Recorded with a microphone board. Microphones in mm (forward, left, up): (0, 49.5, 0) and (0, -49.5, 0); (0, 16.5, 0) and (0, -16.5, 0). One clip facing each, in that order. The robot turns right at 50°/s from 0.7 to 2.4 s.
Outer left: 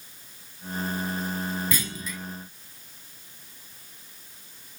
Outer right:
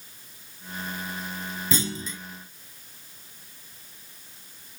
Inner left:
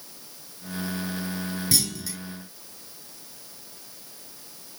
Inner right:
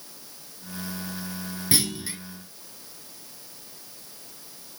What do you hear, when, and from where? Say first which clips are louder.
1.7 s a clunk: outer right 3 dB, inner right 4 dB; 25° right (ahead or behind), 0.9 m; by 2.2 s 30° right (ahead or behind), 0.9 m